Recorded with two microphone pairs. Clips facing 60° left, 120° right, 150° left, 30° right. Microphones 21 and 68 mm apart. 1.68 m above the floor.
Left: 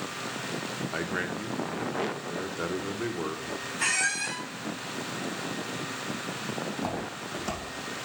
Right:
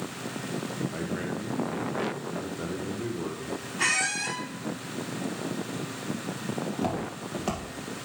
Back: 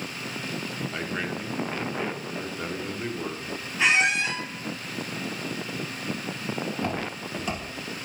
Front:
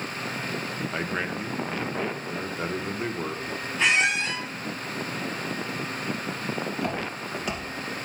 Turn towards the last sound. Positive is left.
turn(degrees=-120)